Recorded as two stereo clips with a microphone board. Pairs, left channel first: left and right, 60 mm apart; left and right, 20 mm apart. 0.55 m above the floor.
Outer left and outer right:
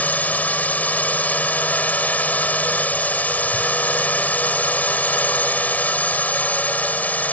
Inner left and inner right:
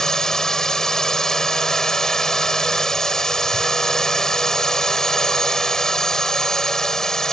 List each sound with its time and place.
0.0 s a drone: 25° left (ahead or behind)